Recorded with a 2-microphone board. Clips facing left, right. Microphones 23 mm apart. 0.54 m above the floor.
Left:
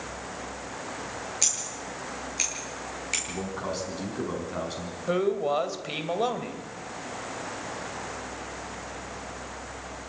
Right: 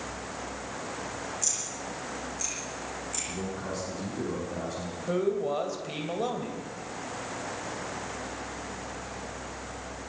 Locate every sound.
1.4 s scissors: 85° left, 8.5 m
3.3 s a man speaking: 45° left (ahead or behind), 5.5 m
5.1 s a man speaking: 30° left (ahead or behind), 2.5 m